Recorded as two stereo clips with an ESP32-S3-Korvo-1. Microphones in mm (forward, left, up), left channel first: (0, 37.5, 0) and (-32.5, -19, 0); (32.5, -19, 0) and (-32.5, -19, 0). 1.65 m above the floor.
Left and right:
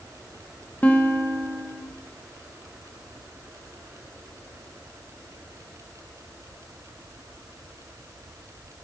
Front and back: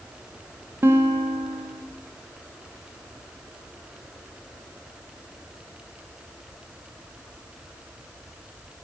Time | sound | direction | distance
0.8 | a guitar | 130° left | 0.7 m